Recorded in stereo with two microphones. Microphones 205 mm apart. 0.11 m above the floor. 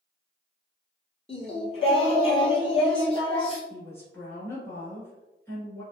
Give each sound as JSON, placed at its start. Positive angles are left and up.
{"t": 1.3, "sound": "singing", "side_deg": 30, "distance_m": 1.3}
{"t": 3.7, "sound": "a woman speaking", "side_deg": 10, "distance_m": 1.7}